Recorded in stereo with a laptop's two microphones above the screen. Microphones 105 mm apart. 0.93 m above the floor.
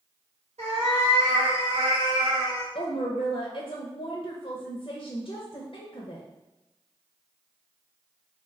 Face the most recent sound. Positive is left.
turn(degrees=50)  # may be behind; listen again after turning